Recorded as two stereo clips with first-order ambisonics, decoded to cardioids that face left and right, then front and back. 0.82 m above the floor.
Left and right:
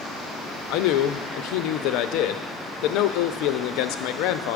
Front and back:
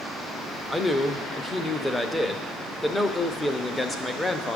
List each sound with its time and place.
0.7 s a man speaking: 85° left, 0.6 m